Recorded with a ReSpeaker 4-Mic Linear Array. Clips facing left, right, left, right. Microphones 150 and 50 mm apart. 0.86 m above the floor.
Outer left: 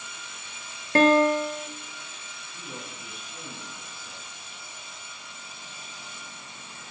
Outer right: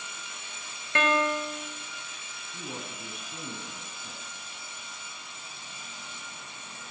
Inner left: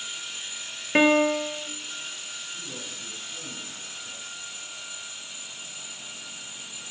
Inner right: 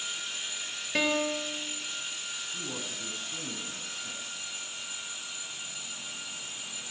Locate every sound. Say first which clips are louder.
0.9 s a piano: outer left 8 dB, inner left 9 dB; 40° left (ahead or behind), 1.2 m
2.5 s a man speaking: outer right 2 dB, inner right 1 dB; 60° right (ahead or behind), 9 m